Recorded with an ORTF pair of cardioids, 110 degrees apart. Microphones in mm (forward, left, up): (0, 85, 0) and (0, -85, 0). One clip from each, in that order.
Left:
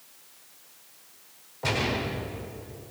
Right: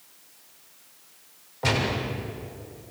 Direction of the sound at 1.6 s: 30° right.